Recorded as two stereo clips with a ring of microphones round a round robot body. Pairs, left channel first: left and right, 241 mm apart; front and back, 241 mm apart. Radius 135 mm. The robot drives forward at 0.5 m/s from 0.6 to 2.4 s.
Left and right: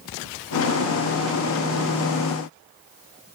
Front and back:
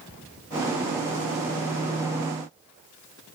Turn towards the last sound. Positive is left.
No sound to turn to.